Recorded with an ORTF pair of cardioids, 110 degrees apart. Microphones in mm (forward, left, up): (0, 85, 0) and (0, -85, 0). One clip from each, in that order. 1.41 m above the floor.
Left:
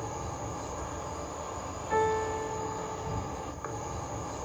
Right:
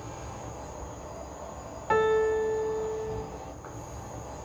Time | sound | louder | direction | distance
0.0 | an insect | left 4 dB | 50° left | 0.8 m
1.9 | a piano | right 5 dB | 65° right | 0.5 m